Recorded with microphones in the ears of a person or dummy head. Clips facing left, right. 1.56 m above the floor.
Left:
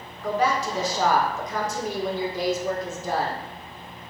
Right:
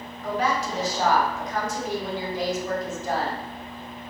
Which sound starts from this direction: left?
A woman speaking, at 0.2 s.